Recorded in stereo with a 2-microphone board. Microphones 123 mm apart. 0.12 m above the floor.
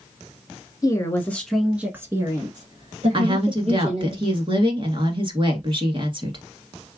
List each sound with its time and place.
0.8 s a woman speaking: 30° left (ahead or behind), 1.2 m; by 4.1 s 60° right (ahead or behind), 2.5 m
3.1 s a woman speaking: 45° right (ahead or behind), 1.5 m